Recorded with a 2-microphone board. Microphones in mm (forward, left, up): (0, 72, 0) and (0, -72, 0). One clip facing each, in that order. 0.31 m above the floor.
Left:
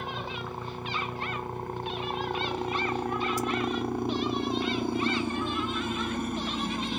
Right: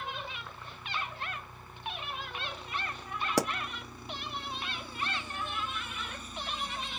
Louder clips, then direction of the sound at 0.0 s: Left 6 dB; 60° left (ahead or behind).